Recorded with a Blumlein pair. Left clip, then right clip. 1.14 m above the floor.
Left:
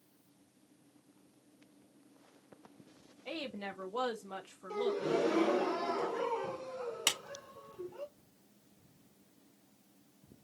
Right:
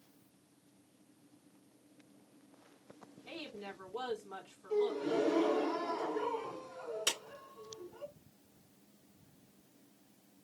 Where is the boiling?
No boiling in this recording.